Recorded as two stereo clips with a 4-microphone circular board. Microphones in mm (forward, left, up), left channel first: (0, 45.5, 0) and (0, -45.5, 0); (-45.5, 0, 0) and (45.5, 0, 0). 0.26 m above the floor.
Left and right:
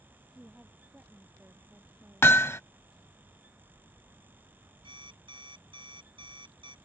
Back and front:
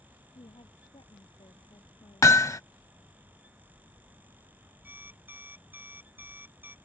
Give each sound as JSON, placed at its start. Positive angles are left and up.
{"t": 0.3, "sound": "a woman speaking", "azimuth_deg": -170}
{"t": 2.2, "sound": "hammering", "azimuth_deg": 140}
{"t": 4.8, "sound": "an alarm clock", "azimuth_deg": -70}